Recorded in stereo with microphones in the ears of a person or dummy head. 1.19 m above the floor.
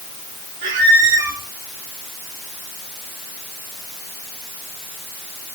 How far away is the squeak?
About 3 m.